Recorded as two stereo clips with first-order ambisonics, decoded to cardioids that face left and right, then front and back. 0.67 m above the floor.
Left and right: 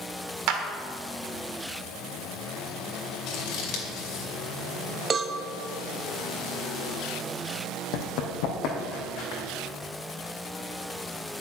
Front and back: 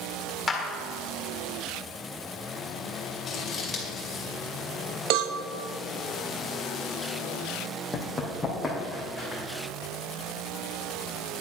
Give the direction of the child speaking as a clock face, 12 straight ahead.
No child speaking in this recording.